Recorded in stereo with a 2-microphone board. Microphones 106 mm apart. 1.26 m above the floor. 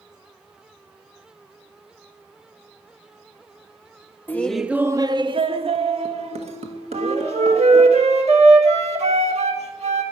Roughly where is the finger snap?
No finger snap in this recording.